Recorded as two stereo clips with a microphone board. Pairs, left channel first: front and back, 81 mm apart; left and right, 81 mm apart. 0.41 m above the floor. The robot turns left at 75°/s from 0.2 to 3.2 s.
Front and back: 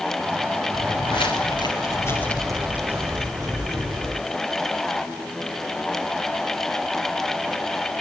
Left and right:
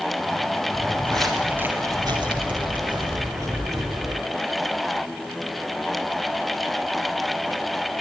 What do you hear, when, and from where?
0.7 s footsteps: 35° left, 4.5 m; by 4.2 s 135° right, 8 m